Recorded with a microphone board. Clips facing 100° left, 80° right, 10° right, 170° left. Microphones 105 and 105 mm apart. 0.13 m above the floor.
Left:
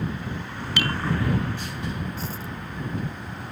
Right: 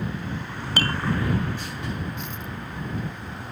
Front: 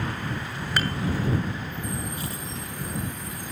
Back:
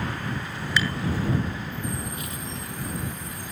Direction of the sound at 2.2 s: 45° left.